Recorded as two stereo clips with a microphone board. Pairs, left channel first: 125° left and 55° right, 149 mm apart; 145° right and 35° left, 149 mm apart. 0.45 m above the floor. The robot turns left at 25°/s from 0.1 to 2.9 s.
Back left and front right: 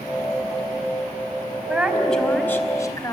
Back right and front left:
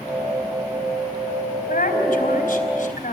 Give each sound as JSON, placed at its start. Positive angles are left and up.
{"t": 1.7, "sound": "a woman speaking", "azimuth_deg": -140, "distance_m": 3.0}